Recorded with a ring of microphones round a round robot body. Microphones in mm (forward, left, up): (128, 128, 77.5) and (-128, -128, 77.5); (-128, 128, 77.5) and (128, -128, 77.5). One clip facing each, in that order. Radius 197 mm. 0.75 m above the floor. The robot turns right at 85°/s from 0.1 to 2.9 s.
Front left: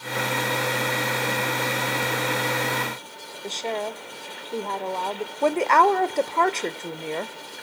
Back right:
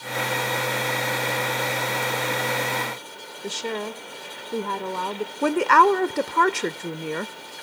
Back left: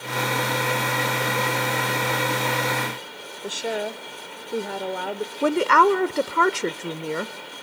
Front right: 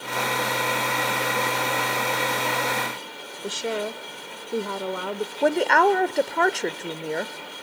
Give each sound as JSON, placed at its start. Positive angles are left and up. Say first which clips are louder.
{"t": 3.4, "sound": "a woman speaking", "louder": "back right 1 dB, even", "azimuth_deg": -120, "distance_m": 0.9}
{"t": 5.4, "sound": "a woman speaking", "louder": "back right 1 dB, back left 1 dB", "azimuth_deg": -165, "distance_m": 0.6}